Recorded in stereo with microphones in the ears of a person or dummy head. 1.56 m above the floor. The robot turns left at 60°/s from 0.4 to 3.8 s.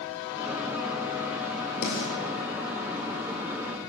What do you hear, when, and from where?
1.8 s a snare drum: 60° left (ahead or behind), 2 m